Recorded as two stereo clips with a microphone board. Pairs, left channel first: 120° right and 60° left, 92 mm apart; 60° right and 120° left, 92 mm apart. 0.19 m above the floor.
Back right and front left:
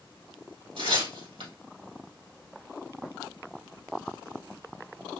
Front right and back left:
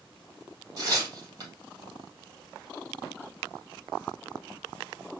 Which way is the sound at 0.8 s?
75° left.